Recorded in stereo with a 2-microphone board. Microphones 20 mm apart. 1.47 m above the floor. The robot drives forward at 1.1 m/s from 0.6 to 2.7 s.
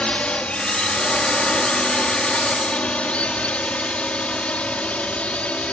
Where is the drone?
65° left (ahead or behind); by 5.7 s 70° left (ahead or behind).